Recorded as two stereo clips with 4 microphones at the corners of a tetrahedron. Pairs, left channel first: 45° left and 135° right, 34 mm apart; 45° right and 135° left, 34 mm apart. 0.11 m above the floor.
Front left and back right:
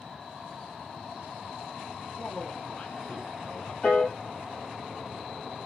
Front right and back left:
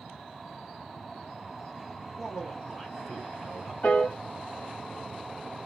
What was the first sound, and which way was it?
A man speaking, 25° left.